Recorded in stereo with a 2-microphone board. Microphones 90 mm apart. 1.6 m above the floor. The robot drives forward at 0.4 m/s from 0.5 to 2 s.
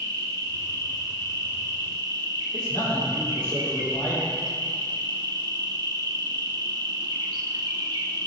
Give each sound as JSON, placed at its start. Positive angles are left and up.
{"t": 0.0, "sound": "an insect", "side_deg": -45, "distance_m": 1.6}
{"t": 2.5, "sound": "a man speaking", "side_deg": 50, "distance_m": 2.5}